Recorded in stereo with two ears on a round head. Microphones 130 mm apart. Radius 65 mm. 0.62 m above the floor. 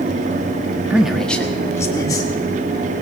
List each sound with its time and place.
0.9 s a man speaking: 10° right (ahead or behind), 0.9 m; by 2.3 s 25° left (ahead or behind), 1.9 m